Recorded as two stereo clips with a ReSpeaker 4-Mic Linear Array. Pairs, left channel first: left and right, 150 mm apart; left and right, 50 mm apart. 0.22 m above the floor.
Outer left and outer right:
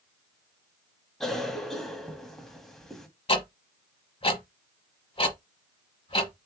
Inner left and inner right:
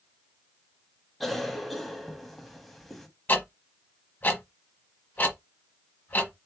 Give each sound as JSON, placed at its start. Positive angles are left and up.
{"t": 1.2, "sound": "a cough", "side_deg": 0, "distance_m": 1.1}
{"t": 3.3, "sound": "ticking", "side_deg": 40, "distance_m": 1.0}